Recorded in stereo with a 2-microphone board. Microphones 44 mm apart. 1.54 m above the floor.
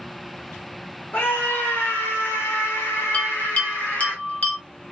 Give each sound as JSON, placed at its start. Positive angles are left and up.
{"t": 1.1, "sound": "a scream", "side_deg": 50, "distance_m": 2.0}
{"t": 3.1, "sound": "a bell", "side_deg": 30, "distance_m": 1.4}